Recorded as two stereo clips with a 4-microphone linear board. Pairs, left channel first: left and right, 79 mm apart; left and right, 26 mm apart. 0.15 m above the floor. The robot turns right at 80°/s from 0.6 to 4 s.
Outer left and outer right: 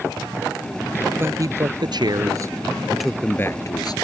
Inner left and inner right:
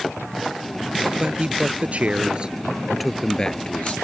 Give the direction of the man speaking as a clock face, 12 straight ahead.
5 o'clock.